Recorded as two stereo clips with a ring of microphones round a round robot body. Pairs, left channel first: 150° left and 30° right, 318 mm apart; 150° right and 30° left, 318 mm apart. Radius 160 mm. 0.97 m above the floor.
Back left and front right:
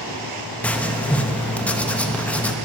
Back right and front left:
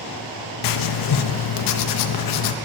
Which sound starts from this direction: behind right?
Writing, at 0.6 s.